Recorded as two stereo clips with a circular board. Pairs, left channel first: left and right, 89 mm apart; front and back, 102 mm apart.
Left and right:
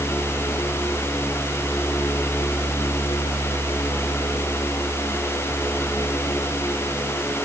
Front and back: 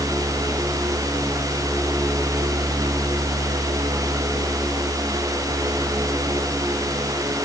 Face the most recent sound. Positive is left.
No sound to turn to.